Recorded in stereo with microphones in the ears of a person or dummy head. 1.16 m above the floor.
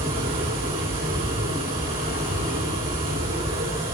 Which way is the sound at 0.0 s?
35° right (ahead or behind).